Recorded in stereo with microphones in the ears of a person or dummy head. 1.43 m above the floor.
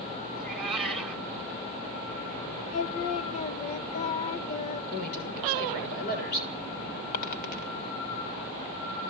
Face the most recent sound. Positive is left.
turn(degrees=55)  # may be behind; listen again after turning